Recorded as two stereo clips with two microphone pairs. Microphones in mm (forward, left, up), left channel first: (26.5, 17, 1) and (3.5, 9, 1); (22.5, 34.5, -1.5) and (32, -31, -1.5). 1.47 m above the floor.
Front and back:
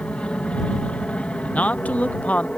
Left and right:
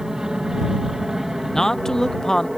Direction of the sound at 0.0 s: Straight ahead.